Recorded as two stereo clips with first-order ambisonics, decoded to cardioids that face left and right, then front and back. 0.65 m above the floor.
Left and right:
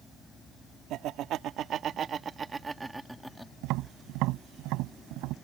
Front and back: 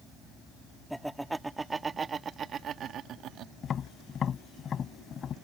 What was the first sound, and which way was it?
Laughter, 90° right.